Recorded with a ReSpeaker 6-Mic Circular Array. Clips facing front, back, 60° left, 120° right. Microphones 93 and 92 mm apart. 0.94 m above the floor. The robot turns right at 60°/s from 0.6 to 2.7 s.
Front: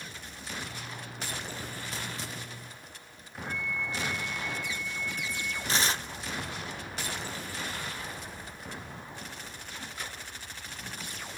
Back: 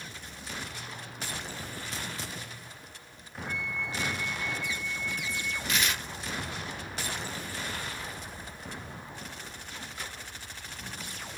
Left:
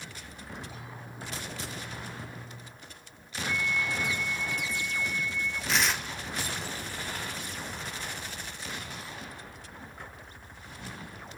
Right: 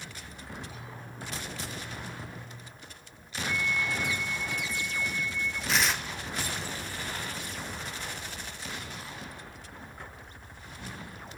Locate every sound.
3.5 s a flute: 30° right, 4.5 m
5.7 s tearing paper: 30° right, 0.7 m